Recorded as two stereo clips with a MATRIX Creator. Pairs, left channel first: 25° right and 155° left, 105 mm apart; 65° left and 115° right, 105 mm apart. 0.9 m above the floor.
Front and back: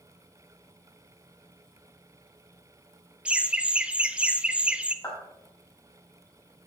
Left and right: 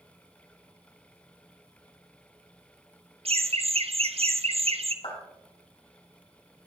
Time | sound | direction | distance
3.2 | laughter | 120° right | 1.0 m
5.0 | a clap | 40° left | 5 m